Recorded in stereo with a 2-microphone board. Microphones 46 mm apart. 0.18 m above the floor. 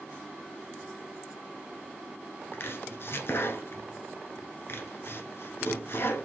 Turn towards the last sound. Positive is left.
turn(degrees=60)  # may be behind; listen again after turning